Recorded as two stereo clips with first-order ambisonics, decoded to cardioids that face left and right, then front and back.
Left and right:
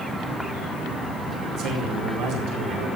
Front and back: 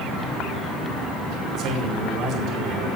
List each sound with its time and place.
1.6 s a man speaking: 130° right, 5 m